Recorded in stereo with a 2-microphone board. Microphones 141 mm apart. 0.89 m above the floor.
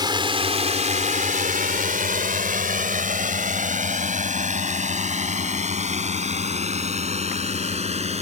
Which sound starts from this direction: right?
A drone, at 0.0 s.